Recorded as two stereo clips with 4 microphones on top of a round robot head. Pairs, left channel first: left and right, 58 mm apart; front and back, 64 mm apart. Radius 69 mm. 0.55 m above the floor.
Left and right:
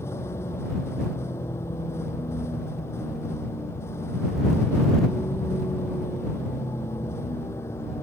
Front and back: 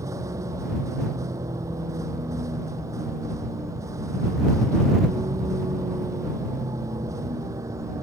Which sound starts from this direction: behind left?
A vehicle, at 0.0 s.